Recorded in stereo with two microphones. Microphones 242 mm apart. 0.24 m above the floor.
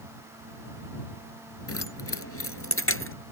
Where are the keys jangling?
70° left (ahead or behind); by 3.2 s 60° left (ahead or behind).